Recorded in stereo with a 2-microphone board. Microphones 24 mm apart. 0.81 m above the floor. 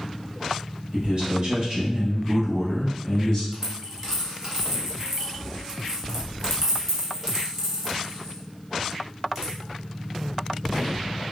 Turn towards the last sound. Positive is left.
turn(degrees=-15)  # may be behind; listen again after turning